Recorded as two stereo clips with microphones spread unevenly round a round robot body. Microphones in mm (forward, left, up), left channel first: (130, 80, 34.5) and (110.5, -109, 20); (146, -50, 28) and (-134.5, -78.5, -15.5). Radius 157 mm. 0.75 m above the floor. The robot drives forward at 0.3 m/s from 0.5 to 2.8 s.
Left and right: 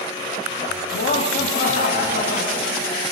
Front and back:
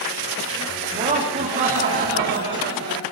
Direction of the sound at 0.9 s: 120° left.